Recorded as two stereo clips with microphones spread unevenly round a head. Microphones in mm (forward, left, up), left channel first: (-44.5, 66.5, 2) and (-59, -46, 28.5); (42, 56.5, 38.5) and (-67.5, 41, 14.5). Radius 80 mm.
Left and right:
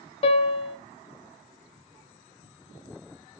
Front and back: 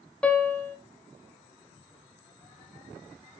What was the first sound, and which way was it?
A piano, 60° left.